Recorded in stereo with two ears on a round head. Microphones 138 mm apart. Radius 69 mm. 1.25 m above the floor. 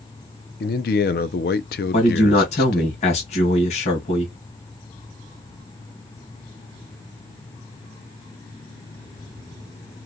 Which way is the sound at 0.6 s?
65° left (ahead or behind).